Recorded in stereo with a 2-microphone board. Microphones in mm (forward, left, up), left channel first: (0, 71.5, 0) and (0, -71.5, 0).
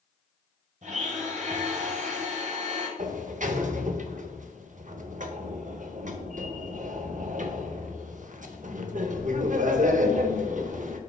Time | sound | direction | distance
0.8 | a blender | 55° right (ahead or behind) | 1.4 m
3.0 | a sliding door | 60° right (ahead or behind) | 0.7 m